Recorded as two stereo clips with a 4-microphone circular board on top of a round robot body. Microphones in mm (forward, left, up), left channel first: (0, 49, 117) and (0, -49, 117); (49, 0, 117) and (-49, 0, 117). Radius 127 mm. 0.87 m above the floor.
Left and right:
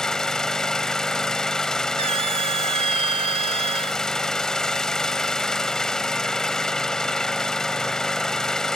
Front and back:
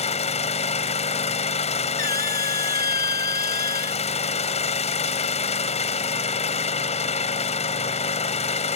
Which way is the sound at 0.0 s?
5° left.